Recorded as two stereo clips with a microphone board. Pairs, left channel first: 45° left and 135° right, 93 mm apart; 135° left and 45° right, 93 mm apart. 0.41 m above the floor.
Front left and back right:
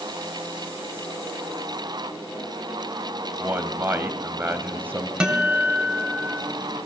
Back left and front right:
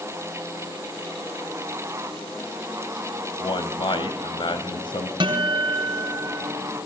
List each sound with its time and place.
3.4 s a man speaking: 160° left, 2.0 m
5.2 s a guitar: 55° right, 2.5 m